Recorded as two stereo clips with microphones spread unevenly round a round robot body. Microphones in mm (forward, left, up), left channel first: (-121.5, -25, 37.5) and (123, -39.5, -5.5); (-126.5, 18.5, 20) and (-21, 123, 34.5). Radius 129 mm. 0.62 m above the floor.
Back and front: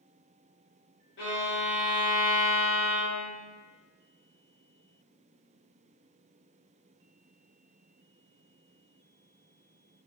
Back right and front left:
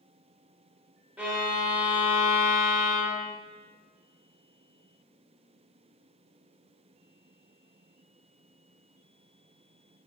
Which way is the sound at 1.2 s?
125° left.